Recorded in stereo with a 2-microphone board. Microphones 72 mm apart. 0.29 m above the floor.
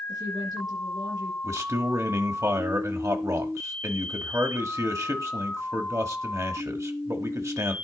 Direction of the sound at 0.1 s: 80° right.